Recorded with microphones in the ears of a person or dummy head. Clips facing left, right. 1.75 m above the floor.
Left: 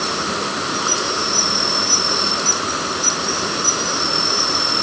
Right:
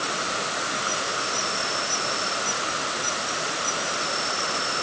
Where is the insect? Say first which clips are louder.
Left 7 dB; 80° left.